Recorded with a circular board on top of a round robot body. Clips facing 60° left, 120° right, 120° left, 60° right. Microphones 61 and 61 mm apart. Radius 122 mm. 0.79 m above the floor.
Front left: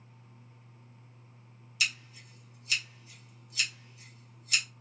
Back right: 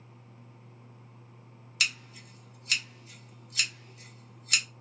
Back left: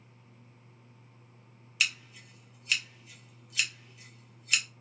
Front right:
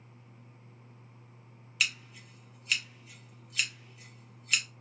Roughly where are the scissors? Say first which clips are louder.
Back right 1 dB, back left 1 dB; behind right.